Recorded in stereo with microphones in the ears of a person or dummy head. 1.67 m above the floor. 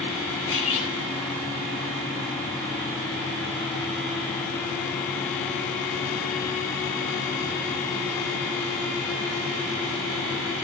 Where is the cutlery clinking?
75° left (ahead or behind), 9 m.